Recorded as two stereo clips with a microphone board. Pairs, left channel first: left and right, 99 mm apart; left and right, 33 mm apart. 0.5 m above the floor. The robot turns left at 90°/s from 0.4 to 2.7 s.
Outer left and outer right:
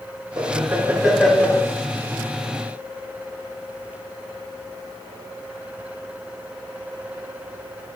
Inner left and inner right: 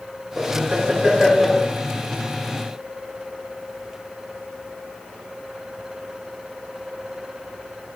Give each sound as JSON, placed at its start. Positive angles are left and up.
{"t": 0.4, "sound": "laughter", "azimuth_deg": -115, "distance_m": 0.9}